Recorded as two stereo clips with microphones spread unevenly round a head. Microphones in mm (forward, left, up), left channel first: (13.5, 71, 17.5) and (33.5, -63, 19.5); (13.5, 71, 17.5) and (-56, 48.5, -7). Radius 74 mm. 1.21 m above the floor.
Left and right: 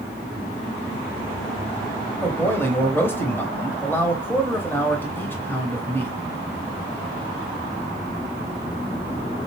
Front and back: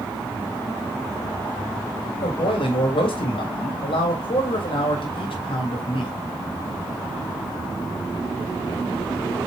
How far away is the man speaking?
About 1.3 m.